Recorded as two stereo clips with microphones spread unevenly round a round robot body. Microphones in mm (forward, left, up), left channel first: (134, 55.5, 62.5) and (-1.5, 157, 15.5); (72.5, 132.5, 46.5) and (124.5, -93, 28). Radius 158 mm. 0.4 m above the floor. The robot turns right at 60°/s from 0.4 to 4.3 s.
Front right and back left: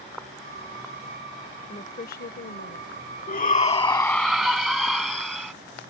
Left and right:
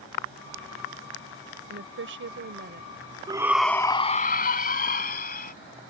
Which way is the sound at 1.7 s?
110° right.